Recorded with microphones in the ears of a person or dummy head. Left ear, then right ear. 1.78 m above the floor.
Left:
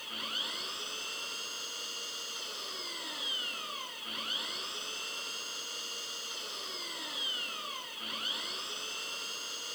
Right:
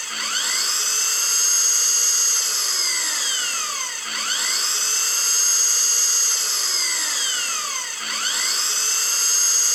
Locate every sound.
0.0 s an engine running: 55° right (ahead or behind)